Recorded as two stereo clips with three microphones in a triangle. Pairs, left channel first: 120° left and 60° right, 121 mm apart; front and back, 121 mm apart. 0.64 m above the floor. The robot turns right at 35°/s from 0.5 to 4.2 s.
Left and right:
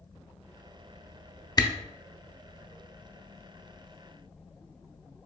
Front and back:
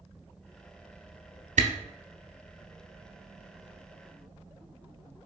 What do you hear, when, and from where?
1.6 s a camera shutter: straight behind, 0.7 m; by 1.7 s 175° right, 0.7 m